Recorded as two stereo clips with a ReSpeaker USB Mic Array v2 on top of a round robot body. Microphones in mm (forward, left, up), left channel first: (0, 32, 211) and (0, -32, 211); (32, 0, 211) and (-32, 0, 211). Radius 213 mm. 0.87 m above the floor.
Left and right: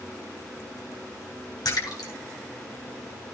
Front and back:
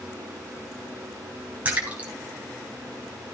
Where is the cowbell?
I don't hear a cowbell.